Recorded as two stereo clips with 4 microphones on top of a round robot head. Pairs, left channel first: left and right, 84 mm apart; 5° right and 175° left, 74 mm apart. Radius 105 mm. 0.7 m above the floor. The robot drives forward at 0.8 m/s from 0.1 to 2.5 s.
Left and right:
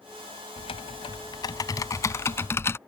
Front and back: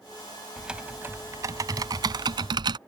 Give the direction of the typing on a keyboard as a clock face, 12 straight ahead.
9 o'clock.